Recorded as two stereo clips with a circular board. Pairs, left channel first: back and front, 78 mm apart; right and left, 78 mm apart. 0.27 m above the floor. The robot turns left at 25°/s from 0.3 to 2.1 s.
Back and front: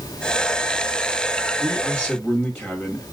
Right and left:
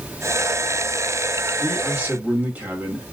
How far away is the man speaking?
About 1.6 m.